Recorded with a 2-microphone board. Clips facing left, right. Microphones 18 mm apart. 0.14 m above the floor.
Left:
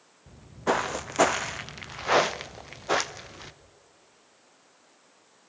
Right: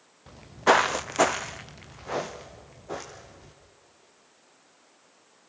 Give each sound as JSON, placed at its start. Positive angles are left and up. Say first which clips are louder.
{"t": 0.3, "sound": "footsteps", "louder": "right 6 dB", "side_deg": -60, "distance_m": 0.7}